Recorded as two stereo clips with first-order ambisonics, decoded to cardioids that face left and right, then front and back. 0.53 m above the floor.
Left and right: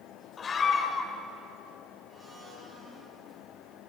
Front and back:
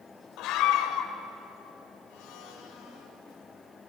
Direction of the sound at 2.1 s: 10° right.